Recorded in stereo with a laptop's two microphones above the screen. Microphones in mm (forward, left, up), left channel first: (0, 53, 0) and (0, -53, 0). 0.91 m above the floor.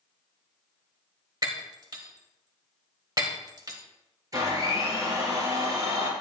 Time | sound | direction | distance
1.4 | breaking glass | 40° right (ahead or behind) | 1.8 m
4.3 | a blender | 35° right (ahead or behind) | 3.5 m